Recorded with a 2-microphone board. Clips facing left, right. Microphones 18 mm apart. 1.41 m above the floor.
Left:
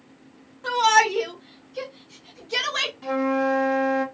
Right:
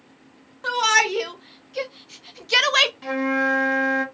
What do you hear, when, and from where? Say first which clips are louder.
0.6 s a shout: left 1 dB; 25° right (ahead or behind), 1.4 m; by 2.9 s 75° right (ahead or behind), 0.6 m
3.0 s a flute: right 1 dB; 20° right (ahead or behind), 0.8 m